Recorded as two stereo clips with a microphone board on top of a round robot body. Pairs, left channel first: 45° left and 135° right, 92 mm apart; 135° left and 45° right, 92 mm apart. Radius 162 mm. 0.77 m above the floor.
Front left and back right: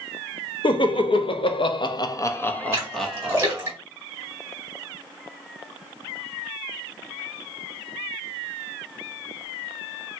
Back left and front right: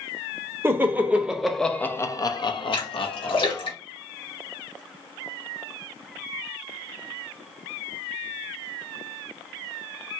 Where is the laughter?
20° left, 1.4 m; by 3.7 s 145° left, 1.6 m.